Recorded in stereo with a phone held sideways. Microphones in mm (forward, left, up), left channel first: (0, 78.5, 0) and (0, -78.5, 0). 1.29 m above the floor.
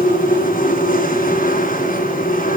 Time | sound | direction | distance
0.0 | a machine running | 65° left (ahead or behind) | 2.5 m